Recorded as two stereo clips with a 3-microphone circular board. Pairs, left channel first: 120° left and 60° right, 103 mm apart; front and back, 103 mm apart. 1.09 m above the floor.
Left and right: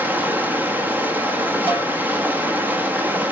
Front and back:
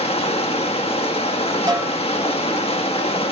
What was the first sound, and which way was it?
Running water, 15° left.